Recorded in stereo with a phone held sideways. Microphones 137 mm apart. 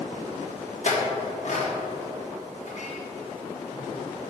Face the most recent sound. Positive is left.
turn(degrees=60)  # may be behind; listen again after turning